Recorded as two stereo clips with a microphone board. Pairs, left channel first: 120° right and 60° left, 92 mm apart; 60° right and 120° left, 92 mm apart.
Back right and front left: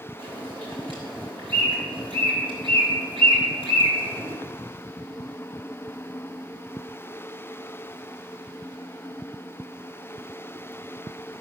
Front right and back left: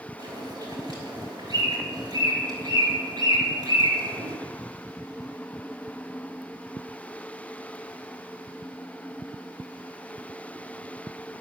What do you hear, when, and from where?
0.2 s a bird: 80° left, 4.5 m